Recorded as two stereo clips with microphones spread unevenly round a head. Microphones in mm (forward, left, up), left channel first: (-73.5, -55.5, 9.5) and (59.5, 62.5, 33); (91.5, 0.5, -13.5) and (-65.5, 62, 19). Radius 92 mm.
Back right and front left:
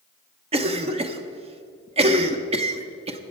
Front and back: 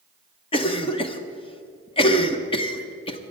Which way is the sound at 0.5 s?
10° right.